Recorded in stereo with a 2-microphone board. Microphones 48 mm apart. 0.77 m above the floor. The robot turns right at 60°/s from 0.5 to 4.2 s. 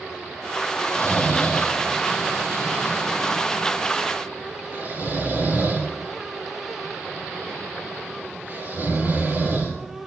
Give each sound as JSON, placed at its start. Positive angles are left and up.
{"t": 0.8, "sound": "snoring", "side_deg": 60, "distance_m": 6.0}